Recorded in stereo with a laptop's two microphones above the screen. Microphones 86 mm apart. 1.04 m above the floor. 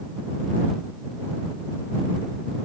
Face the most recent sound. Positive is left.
No sound to turn to.